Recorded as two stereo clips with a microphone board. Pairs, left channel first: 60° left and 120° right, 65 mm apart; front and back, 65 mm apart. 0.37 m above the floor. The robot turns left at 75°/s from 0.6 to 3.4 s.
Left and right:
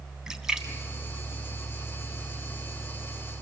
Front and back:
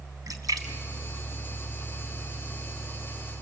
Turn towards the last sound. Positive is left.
turn(degrees=-50)